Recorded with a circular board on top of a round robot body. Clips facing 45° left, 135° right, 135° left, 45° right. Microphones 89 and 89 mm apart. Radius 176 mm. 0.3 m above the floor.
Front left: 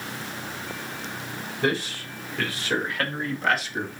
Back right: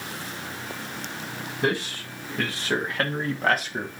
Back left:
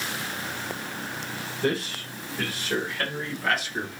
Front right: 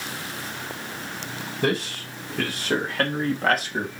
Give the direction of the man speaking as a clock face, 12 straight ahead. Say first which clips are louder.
Even, front right 2 dB; 2 o'clock.